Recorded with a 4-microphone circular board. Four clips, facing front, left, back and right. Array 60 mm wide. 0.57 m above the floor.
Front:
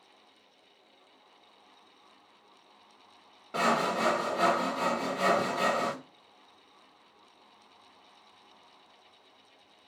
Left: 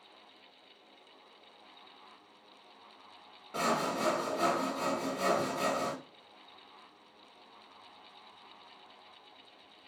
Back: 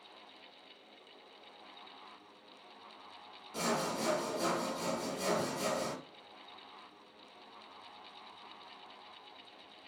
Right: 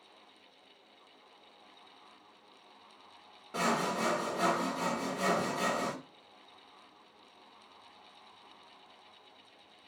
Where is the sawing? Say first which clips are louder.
Even, front 8 dB; 5° right, 0.7 m.